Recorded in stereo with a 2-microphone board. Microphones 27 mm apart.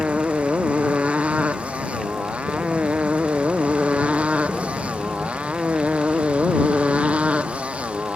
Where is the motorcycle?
55° right (ahead or behind).